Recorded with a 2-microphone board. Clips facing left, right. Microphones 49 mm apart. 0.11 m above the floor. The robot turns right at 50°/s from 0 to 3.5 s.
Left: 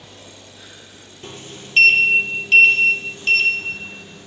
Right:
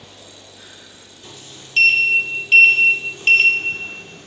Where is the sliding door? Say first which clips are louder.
Left 5 dB; 50° left (ahead or behind), 1.6 m; by 4.3 s 50° right (ahead or behind), 1.6 m.